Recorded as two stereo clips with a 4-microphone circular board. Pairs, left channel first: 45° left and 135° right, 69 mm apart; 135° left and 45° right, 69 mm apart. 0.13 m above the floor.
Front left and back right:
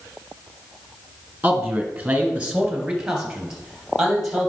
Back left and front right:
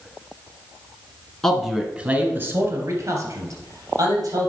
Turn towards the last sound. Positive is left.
turn(degrees=-50)